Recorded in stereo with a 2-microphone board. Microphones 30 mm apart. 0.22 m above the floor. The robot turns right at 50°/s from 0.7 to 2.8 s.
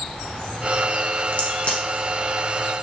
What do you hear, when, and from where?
1.3 s a crack: 55° left (ahead or behind), 0.8 m; by 1.8 s 40° left (ahead or behind), 0.8 m